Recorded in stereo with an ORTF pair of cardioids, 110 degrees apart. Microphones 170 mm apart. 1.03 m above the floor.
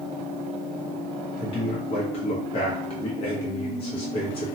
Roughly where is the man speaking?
Ahead left.